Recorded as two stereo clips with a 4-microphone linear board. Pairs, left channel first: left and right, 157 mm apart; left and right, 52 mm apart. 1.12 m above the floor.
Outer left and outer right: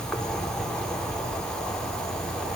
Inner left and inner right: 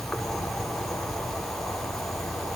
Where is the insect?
5° left (ahead or behind), 5 m.